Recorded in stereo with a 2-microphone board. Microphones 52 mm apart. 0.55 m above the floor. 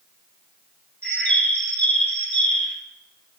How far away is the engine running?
No engine running in this recording.